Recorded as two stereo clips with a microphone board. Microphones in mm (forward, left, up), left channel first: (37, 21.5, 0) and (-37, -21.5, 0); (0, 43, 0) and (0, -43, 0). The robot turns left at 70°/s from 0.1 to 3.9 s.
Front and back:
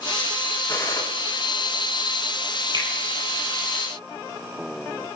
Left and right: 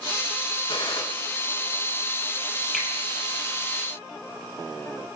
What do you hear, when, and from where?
0.7 s a gunshot: 95° left, 3.5 m; by 1.0 s 70° left, 3.5 m
2.7 s a finger snap: 175° left, 6.5 m; by 2.9 s 165° left, 6.5 m